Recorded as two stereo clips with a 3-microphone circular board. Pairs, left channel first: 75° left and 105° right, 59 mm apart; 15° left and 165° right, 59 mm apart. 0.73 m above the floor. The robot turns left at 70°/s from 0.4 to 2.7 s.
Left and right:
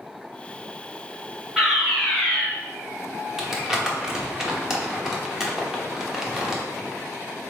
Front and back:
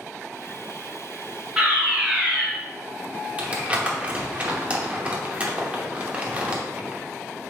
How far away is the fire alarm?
About 1.4 m.